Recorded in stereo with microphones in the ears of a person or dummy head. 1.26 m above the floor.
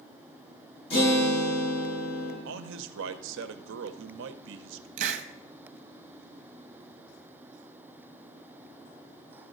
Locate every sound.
0.9 s a guitar: 35° left (ahead or behind), 6 m
2.5 s a man speaking: 70° right (ahead or behind), 0.6 m
5.0 s a hiss: 45° right (ahead or behind), 0.9 m